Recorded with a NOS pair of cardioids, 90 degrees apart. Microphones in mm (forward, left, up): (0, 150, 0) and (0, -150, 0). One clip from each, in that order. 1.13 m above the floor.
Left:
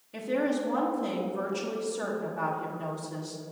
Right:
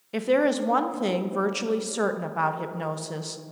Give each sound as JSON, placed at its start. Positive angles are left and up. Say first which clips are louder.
{"t": 0.1, "sound": "a woman speaking", "louder": "right 7 dB", "azimuth_deg": -55, "distance_m": 0.7}